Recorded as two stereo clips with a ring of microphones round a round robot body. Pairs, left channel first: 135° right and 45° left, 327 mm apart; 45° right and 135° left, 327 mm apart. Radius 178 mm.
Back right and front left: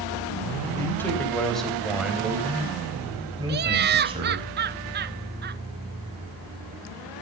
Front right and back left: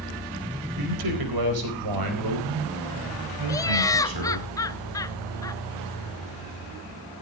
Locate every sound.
0.8 s a man speaking: 145° left, 4 m; by 4.5 s 115° left, 5.5 m
3.5 s laughter: 25° left, 0.7 m